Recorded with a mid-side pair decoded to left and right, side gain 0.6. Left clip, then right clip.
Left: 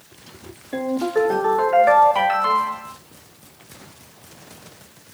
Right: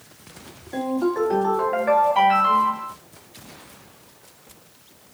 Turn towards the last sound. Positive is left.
turn(degrees=60)